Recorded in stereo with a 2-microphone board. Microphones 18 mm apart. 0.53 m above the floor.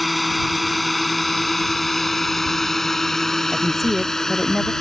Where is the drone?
5° right (ahead or behind); by 4.8 s 30° left (ahead or behind).